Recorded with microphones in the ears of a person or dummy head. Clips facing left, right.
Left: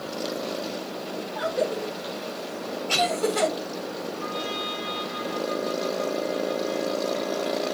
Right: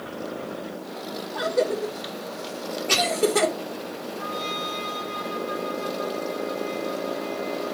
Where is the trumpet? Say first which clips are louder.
Even; 65° right (ahead or behind), 2.5 m.